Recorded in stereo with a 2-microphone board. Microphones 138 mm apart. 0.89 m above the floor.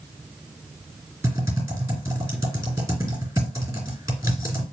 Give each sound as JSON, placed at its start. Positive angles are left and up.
{"t": 1.2, "sound": "typing on a keyboard", "side_deg": -25, "distance_m": 2.5}